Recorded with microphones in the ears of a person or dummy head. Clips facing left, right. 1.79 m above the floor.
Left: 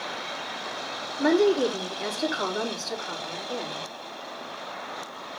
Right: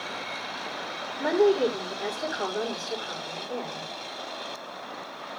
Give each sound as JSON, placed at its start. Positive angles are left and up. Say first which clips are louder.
{"t": 1.2, "sound": "a woman speaking", "louder": "left 1 dB", "side_deg": 15, "distance_m": 4.0}